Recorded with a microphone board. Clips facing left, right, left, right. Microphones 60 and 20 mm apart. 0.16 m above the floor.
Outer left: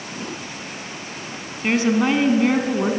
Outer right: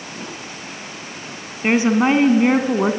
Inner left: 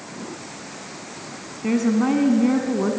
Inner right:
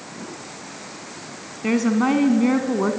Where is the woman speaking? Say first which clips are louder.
Outer right 3 dB, inner right 1 dB; 25° right (ahead or behind), 1.4 m.